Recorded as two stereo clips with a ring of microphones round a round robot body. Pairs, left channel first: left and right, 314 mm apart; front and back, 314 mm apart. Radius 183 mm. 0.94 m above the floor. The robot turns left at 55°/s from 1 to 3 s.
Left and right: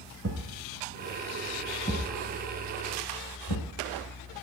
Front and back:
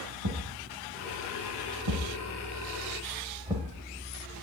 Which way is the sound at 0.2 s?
145° right.